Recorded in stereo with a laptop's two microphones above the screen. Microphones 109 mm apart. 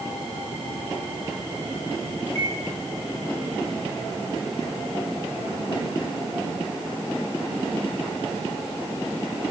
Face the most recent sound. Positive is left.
turn(degrees=-85)